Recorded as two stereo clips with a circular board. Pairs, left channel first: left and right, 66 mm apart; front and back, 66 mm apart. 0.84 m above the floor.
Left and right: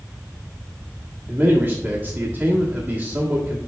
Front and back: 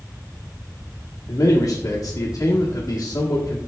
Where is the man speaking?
30° right, 1.5 m.